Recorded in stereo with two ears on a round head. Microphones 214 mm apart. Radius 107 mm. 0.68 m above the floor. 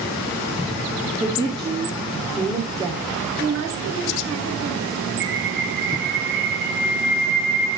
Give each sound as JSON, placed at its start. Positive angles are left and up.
{"t": 1.0, "sound": "a woman speaking", "side_deg": -20, "distance_m": 1.5}
{"t": 3.4, "sound": "a woman speaking", "side_deg": -65, "distance_m": 7.0}
{"t": 5.2, "sound": "a bird", "side_deg": -50, "distance_m": 6.0}